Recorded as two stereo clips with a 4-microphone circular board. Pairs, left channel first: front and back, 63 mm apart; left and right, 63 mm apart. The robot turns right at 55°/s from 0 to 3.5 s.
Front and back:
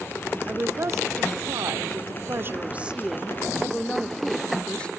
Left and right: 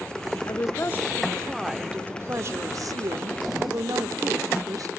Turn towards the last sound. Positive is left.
turn(degrees=-75)